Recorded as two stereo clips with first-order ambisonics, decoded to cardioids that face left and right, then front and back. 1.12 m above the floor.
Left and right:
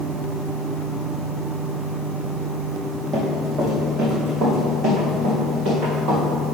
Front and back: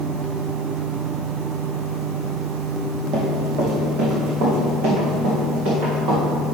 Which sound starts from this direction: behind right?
Running footsteps, at 3.1 s.